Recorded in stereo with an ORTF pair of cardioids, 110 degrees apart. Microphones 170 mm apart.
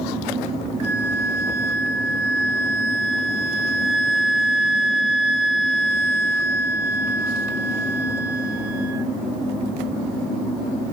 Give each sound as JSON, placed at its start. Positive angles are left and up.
{"t": 0.8, "sound": "a flute", "azimuth_deg": -40, "distance_m": 1.0}